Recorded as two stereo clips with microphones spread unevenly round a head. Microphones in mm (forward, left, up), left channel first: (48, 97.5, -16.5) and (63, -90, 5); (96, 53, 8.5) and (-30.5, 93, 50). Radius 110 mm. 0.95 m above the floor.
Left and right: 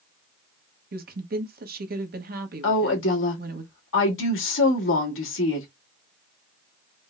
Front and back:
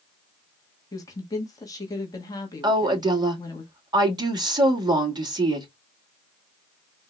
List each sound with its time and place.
0.9 s a woman speaking: 60° right, 1.2 m
2.6 s a woman speaking: 100° left, 2 m